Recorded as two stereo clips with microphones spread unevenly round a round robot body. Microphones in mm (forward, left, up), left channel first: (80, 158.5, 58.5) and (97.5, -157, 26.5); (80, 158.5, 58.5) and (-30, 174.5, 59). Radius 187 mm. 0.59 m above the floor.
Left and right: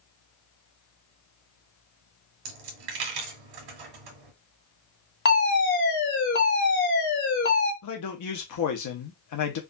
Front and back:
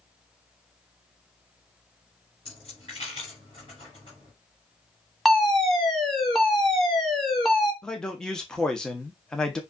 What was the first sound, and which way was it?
A dropped coin, 80° right.